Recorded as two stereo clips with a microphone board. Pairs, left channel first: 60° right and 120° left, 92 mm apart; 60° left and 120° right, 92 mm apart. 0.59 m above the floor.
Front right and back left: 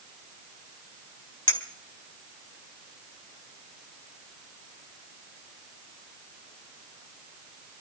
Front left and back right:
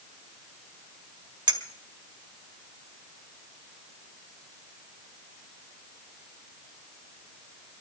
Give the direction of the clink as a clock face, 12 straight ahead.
3 o'clock.